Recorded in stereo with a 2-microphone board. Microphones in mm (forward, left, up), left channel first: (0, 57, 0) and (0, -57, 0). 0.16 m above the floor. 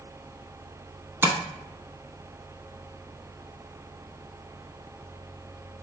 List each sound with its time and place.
1.2 s tapping: 20° right (ahead or behind), 0.7 m